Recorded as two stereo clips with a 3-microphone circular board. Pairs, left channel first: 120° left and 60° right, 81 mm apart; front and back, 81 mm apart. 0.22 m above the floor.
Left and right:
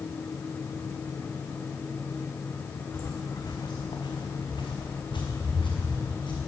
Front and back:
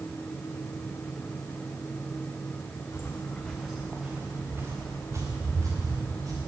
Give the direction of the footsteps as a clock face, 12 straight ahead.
10 o'clock.